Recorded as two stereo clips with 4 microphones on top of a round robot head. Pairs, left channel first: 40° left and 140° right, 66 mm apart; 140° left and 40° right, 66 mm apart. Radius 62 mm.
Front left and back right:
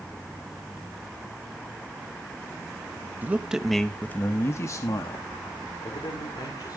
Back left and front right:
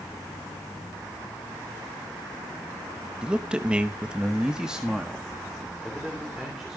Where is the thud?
No thud in this recording.